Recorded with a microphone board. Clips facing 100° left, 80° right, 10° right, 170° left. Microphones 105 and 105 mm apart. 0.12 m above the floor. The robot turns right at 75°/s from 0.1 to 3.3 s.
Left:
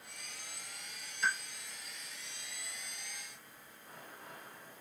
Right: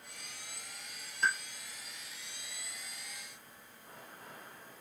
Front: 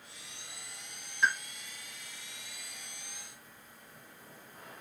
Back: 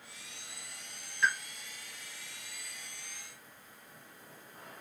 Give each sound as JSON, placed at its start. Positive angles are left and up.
{"t": 1.2, "sound": "a pop", "azimuth_deg": -75, "distance_m": 1.4}